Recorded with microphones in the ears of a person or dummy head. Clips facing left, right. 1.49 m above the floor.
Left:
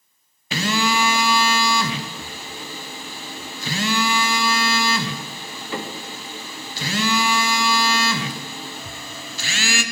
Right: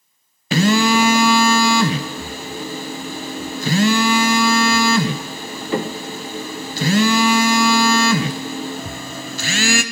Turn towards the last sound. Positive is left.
turn(degrees=-45)  # may be behind; listen again after turning